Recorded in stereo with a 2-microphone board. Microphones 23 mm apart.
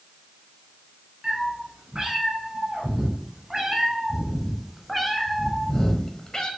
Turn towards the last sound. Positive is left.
turn(degrees=35)  # may be behind; listen again after turning